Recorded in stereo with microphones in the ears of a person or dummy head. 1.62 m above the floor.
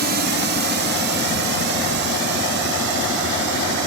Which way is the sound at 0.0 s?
45° right (ahead or behind).